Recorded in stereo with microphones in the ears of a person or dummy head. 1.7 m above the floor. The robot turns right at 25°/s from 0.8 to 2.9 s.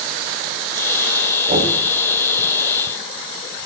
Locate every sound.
1.5 s knocking: 45° right (ahead or behind), 4 m; by 1.8 s 35° right (ahead or behind), 4 m